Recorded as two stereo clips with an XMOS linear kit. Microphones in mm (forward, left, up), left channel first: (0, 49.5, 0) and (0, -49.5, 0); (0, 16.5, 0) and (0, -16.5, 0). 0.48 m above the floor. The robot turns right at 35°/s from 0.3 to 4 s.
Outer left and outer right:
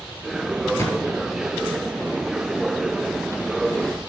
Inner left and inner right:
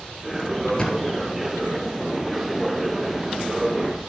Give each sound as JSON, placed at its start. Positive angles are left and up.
{"t": 0.8, "sound": "a thud", "side_deg": 25, "distance_m": 2.0}